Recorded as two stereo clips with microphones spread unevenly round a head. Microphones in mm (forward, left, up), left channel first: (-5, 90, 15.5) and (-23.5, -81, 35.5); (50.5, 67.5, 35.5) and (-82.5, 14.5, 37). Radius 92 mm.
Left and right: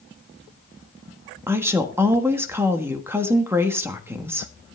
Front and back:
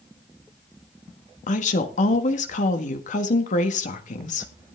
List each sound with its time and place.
1.5 s a woman speaking: 15° right, 1.5 m